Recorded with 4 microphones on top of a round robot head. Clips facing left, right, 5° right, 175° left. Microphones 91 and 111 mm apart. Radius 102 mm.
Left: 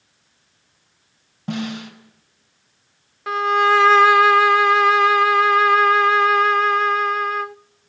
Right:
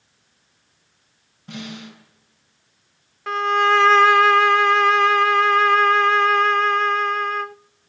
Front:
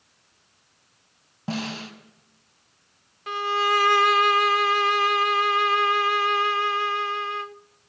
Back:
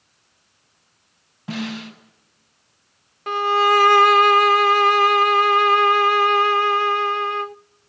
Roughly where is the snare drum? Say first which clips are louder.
Left 8 dB, back 2 dB; ahead left.